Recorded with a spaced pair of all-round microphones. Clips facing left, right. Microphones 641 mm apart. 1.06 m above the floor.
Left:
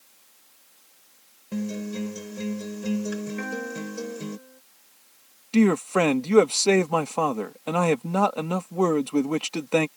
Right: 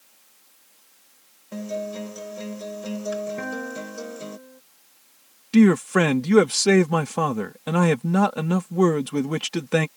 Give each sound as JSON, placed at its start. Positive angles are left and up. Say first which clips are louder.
{"t": 1.5, "sound": "a guitar", "louder": "left 2 dB", "side_deg": 50}
{"t": 3.4, "sound": "a guitar", "louder": "even", "side_deg": -60}
{"t": 5.5, "sound": "a man speaking", "louder": "right 4 dB", "side_deg": -45}